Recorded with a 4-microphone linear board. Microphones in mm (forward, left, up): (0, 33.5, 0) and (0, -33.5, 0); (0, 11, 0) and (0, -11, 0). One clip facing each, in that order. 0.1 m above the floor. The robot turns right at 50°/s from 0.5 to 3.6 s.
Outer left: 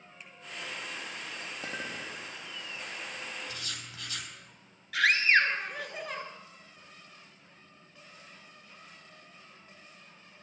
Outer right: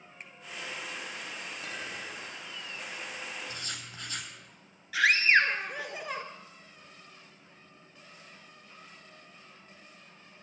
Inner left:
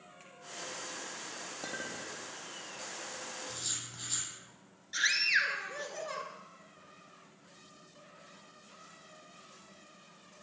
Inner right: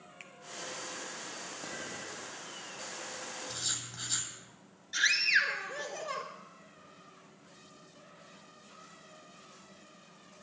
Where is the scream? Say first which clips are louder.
Outer right 1 dB, inner right 2 dB; 5° right (ahead or behind), 1.4 m.